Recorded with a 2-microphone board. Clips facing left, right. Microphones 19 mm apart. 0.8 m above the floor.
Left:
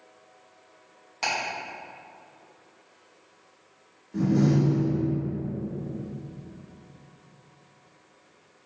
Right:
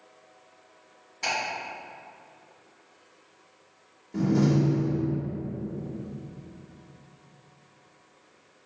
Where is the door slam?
25° right (ahead or behind), 0.8 m.